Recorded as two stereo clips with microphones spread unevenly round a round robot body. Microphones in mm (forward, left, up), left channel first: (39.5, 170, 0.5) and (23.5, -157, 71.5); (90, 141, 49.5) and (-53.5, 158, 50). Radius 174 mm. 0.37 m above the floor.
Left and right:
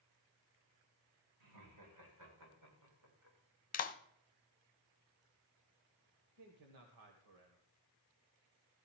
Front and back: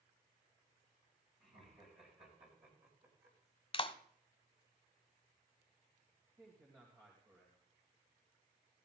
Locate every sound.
1.4 s laughter: 120° right, 7.5 m; by 3.4 s 145° right, 6.5 m
3.7 s a clap: 35° left, 1.0 m
6.4 s a man speaking: 115° right, 2.0 m